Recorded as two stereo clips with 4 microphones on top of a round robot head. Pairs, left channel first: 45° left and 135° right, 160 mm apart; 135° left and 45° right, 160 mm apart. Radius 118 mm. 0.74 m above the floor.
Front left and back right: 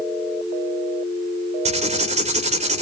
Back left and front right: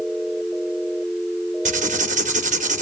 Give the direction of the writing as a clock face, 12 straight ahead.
3 o'clock.